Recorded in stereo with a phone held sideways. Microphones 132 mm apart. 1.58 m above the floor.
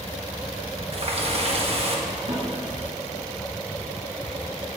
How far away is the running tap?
About 1.1 m.